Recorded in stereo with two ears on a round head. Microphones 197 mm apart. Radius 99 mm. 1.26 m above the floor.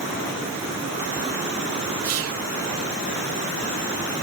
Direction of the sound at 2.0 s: 85° right.